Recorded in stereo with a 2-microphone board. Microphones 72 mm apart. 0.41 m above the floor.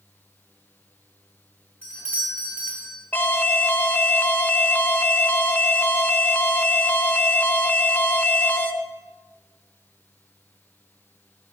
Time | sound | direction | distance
1.8 | a doorbell | 35° right (ahead or behind) | 3.5 m
3.1 | an alarm | 25° left (ahead or behind) | 0.6 m